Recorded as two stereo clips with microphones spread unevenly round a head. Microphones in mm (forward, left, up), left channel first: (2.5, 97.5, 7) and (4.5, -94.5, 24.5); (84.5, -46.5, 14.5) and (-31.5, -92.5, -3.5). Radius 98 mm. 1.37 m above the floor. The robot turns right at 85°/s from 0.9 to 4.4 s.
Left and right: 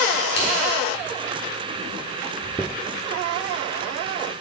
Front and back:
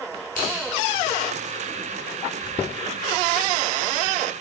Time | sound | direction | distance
0.3 | scissors | 55° left | 1.7 m